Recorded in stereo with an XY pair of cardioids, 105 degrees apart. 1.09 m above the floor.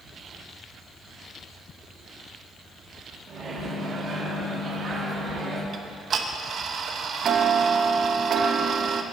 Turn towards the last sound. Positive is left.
turn(degrees=-55)